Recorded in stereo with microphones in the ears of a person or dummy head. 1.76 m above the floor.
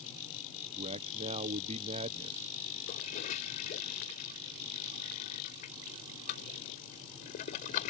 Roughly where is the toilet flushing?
Left.